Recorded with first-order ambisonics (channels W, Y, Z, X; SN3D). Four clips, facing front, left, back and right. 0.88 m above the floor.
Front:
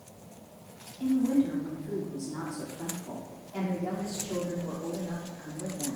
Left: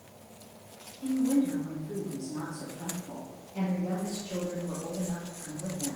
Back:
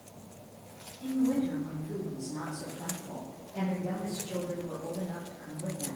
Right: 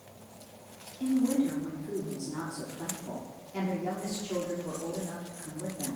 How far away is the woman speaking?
About 1.8 m.